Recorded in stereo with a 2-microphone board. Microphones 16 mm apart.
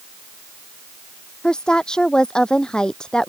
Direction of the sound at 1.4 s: 65° left (ahead or behind).